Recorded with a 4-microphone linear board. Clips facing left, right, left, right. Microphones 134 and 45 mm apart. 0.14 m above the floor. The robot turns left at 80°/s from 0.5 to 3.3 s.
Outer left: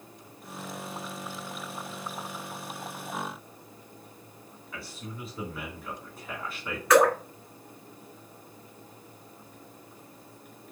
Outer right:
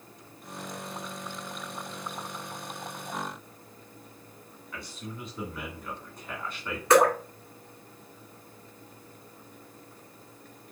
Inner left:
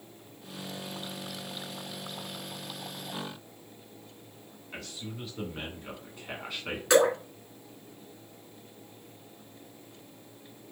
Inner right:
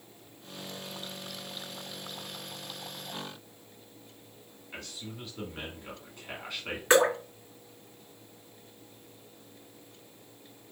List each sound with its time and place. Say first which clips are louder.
4.7 s a man speaking: outer right 1 dB, inner left 2 dB; 5° left (ahead or behind), 1.5 m
6.9 s dripping: even, inner left 1 dB; 25° right (ahead or behind), 2 m